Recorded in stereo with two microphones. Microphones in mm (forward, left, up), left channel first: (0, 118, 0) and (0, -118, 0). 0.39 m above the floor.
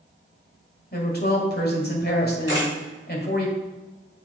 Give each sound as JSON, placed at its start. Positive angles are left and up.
{"t": 0.9, "sound": "a woman speaking", "side_deg": 45, "distance_m": 1.7}
{"t": 2.5, "sound": "a camera shutter", "side_deg": 75, "distance_m": 3.0}